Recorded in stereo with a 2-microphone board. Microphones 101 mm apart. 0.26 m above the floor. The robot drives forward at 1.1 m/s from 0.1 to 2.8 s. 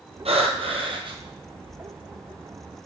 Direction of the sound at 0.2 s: 90° right.